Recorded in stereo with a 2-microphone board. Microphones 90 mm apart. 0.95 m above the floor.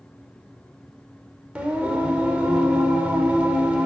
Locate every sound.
1.6 s singing: 15° right (ahead or behind), 0.8 m